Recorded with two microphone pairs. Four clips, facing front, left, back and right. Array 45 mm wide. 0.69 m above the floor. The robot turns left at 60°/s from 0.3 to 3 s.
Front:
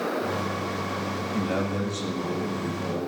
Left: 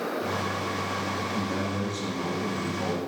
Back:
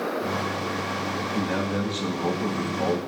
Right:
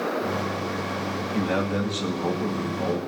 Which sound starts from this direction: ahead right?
A man speaking, at 1.3 s.